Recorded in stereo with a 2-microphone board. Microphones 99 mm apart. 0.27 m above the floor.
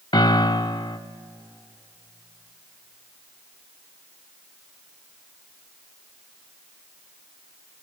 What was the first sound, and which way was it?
A piano, 50° left (ahead or behind).